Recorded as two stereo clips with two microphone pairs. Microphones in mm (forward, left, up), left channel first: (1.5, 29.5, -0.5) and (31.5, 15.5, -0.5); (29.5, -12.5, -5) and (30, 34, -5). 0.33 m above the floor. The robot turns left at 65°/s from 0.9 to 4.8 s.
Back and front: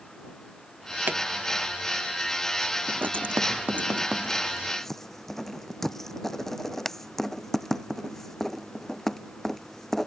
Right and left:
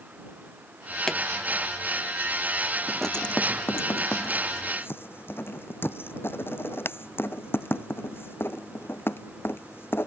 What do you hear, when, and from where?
1.1 s a pop: 10° right; by 1.2 s 15° right
2.9 s writing: straight ahead; by 10.1 s 125° right